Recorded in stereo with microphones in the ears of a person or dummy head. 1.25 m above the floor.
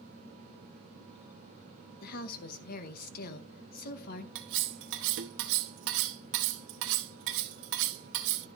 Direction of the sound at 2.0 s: 50° left (ahead or behind).